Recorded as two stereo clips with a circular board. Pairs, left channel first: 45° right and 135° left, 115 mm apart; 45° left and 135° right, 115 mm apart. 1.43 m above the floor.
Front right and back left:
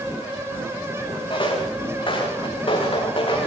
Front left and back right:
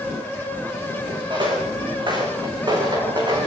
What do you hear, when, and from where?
1.3 s footsteps: 90° right, 8 m; by 3.5 s 85° right, 8.5 m